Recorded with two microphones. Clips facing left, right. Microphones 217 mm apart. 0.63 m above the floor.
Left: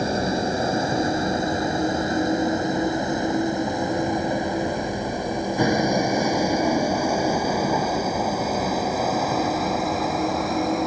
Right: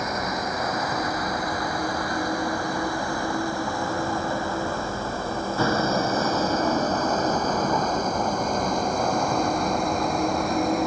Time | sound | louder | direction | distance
0.0 | a vehicle | left 6 dB | 30° left (ahead or behind) | ?